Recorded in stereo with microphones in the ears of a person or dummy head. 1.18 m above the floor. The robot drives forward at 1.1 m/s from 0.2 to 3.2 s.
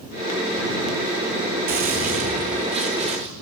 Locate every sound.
1.7 s a gunshot: 45° right (ahead or behind), 3.5 m; by 3.3 s 30° right (ahead or behind), 5 m